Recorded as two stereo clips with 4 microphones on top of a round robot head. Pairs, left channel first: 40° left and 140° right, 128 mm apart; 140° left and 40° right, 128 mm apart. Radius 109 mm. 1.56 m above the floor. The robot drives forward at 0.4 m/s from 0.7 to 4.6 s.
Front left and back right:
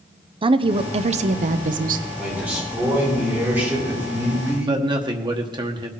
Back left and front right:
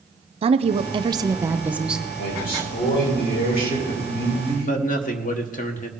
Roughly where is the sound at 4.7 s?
Behind.